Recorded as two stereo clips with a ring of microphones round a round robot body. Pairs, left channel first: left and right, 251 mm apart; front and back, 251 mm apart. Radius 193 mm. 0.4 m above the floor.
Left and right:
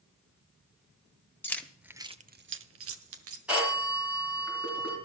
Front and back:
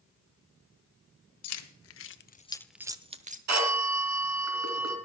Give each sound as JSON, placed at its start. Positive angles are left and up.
{"t": 1.4, "sound": "keys jangling", "azimuth_deg": 10, "distance_m": 1.5}
{"t": 3.5, "sound": "a phone ringing", "azimuth_deg": -175, "distance_m": 3.0}